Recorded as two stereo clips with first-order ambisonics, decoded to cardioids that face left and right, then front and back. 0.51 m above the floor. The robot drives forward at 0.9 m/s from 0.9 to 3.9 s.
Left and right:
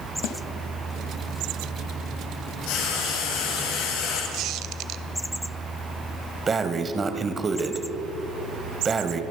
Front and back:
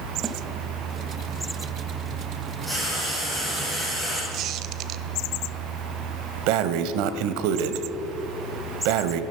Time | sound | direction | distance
0.2 | a snare drum | 110° left | 1.4 m
2.7 | frying | 90° left | 6.5 m
4.3 | a squeak | 135° right | 0.6 m
6.5 | breathing | 165° right | 0.9 m